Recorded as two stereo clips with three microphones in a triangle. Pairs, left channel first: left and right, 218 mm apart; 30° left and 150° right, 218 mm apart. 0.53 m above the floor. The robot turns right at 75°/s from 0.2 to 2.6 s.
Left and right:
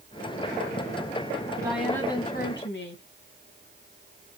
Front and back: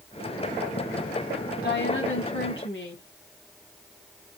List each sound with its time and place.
1.6 s a woman speaking: 15° right, 3.5 m; by 3.0 s 60° left, 3.5 m